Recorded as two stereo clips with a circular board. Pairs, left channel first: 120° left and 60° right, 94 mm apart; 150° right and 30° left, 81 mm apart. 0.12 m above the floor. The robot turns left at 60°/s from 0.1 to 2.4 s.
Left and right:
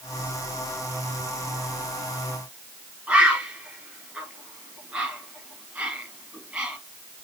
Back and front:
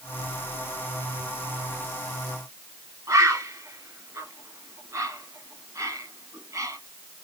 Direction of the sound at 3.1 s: 15° left.